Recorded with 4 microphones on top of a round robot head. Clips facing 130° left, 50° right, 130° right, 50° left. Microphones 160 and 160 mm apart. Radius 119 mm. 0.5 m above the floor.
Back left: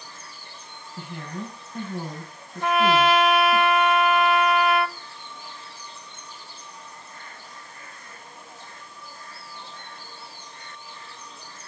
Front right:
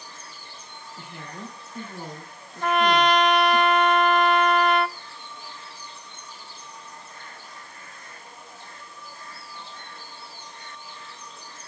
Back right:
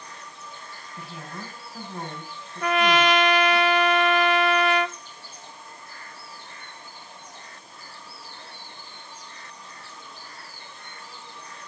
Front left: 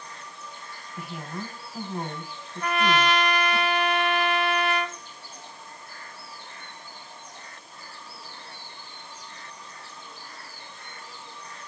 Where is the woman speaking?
135° left, 6 m.